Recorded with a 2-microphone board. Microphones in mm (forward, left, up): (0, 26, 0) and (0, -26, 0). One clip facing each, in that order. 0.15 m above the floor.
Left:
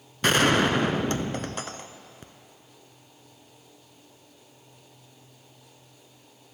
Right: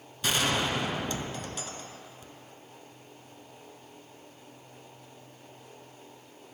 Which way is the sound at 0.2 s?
50° left (ahead or behind).